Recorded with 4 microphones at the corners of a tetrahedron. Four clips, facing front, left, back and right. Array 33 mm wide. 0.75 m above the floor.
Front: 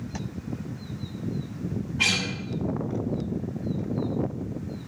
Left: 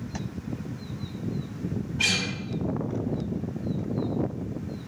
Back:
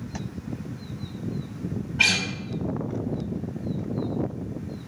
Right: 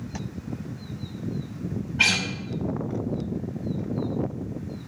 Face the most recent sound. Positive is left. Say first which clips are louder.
# right 4 dB, back 3 dB
turn(degrees=-145)